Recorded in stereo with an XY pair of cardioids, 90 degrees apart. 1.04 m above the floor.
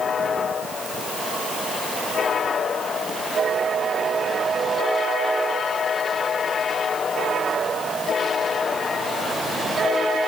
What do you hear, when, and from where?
Only background noise.